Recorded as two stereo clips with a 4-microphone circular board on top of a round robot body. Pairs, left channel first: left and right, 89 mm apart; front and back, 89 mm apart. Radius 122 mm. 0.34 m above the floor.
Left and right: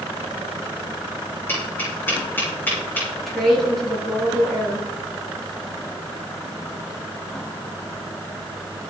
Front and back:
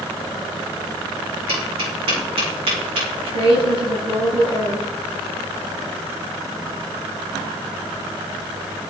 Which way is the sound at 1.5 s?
160° left.